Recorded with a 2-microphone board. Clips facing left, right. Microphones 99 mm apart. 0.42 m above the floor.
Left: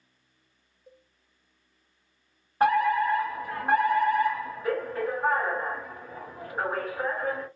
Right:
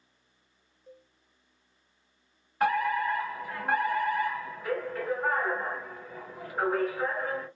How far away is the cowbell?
About 0.6 m.